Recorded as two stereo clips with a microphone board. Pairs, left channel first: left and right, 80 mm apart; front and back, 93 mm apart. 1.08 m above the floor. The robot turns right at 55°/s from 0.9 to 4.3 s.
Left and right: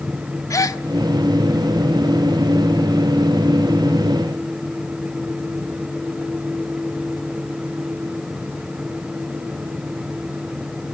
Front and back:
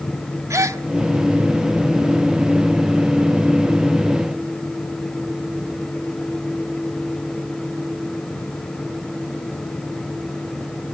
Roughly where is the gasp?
Behind left.